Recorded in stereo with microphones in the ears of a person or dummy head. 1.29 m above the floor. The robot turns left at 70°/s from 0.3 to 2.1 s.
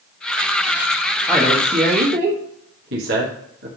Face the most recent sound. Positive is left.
turn(degrees=-55)  # may be behind; listen again after turning